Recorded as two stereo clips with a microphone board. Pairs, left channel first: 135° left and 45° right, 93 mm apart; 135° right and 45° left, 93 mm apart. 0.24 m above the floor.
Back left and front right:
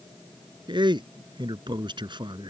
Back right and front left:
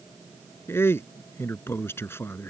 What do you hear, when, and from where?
0.7 s a man speaking: 75° right